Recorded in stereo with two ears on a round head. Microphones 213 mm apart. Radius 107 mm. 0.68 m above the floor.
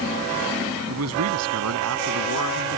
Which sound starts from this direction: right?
A man speaking, at 0.9 s.